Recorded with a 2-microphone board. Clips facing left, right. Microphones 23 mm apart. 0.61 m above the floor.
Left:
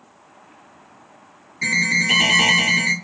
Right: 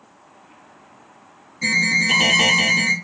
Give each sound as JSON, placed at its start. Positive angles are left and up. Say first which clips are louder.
{"t": 1.6, "sound": "an alarm", "louder": "right 1 dB", "side_deg": 20, "distance_m": 1.7}